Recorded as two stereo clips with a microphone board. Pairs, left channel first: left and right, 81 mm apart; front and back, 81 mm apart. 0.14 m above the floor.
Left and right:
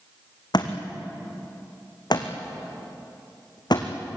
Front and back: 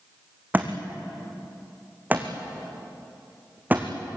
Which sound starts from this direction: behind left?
A thud, at 0.5 s.